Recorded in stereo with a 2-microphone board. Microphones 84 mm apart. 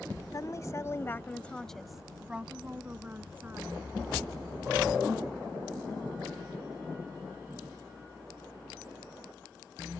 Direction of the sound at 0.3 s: 45° left (ahead or behind).